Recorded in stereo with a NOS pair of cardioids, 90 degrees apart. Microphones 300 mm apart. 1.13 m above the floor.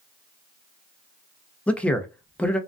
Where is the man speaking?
5° left, 0.6 m.